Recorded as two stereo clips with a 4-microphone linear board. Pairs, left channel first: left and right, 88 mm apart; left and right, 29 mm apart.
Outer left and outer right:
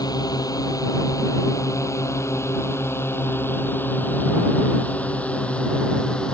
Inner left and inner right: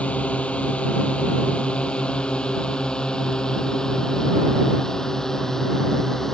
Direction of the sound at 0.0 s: 45° left (ahead or behind).